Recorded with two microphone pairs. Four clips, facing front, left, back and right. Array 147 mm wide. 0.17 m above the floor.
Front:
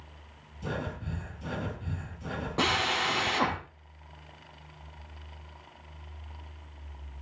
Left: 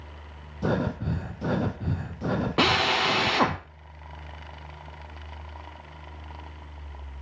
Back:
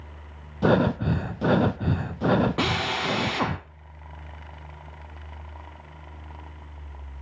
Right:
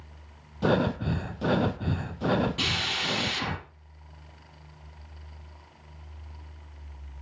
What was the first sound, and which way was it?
Breathing, 170° right.